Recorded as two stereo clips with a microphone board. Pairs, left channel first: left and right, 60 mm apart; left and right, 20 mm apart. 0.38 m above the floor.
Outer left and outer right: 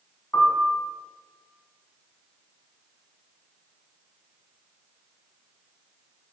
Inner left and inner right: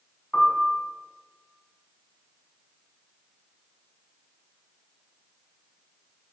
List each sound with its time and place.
0.3 s a piano: 40° left (ahead or behind), 2.5 m